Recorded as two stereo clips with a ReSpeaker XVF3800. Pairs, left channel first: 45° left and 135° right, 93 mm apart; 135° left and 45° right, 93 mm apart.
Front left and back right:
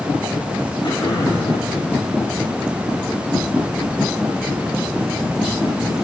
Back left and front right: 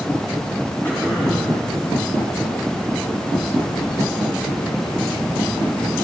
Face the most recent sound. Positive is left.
turn(degrees=65)